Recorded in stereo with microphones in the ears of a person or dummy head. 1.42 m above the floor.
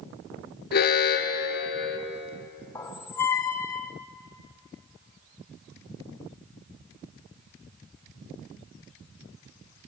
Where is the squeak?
20° left (ahead or behind), 0.6 m.